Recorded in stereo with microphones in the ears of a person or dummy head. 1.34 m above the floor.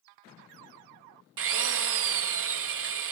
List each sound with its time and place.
1.4 s a drill: 65° right (ahead or behind), 0.8 m